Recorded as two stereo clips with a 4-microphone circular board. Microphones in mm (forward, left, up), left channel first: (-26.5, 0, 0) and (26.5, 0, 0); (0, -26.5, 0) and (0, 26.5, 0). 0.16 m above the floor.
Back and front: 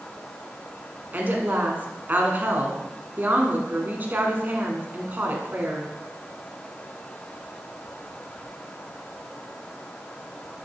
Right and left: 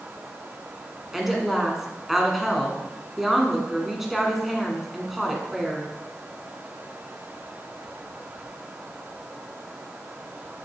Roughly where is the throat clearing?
No throat clearing in this recording.